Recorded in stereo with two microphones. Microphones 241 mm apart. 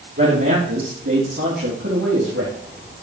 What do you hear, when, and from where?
0.2 s a man speaking: 60° right (ahead or behind), 3 m; by 2.5 s 75° right (ahead or behind), 5 m